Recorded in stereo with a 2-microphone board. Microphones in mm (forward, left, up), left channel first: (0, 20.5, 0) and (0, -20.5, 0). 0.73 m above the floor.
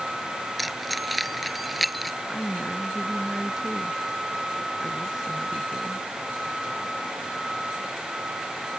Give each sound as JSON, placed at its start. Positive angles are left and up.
{"t": 0.6, "sound": "keys jangling", "side_deg": 0}
{"t": 2.3, "sound": "a woman speaking", "side_deg": -15}